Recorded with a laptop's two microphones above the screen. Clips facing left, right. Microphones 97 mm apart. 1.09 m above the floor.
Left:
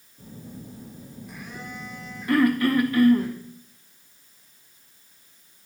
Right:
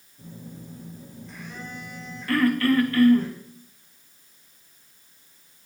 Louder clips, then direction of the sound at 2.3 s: Left 1 dB; 15° left (ahead or behind).